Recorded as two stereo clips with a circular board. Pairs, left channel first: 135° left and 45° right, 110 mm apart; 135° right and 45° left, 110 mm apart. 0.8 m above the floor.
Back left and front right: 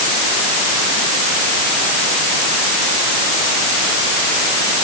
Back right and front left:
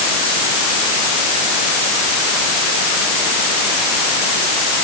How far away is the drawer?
I don't hear a drawer.